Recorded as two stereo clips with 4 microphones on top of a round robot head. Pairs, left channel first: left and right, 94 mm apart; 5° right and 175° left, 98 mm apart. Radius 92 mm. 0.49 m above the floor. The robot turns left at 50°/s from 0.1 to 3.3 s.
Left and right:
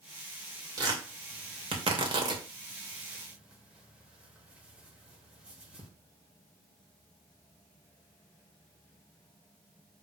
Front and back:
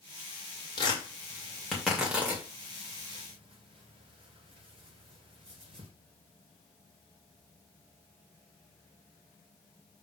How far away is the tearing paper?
About 2.5 m.